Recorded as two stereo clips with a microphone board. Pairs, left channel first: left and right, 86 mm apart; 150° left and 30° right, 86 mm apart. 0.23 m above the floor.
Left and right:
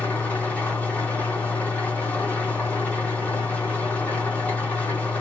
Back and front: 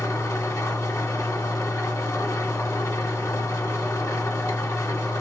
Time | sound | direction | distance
0.0 | an engine running | 150° left | 1.5 m